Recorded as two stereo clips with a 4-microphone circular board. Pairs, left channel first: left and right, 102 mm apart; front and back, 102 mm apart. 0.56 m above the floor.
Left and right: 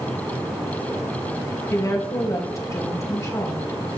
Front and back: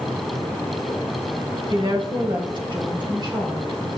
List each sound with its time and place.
1.7 s a woman speaking: 145° left, 2.5 m